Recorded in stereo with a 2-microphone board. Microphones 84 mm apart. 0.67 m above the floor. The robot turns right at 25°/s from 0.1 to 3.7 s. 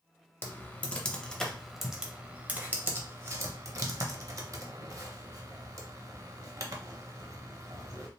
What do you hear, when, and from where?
0.4 s typing on a keyboard: 25° left (ahead or behind), 0.6 m; by 8.1 s 40° right (ahead or behind), 0.6 m